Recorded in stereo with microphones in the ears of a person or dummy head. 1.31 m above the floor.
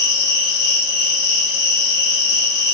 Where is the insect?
70° left (ahead or behind), 2 m.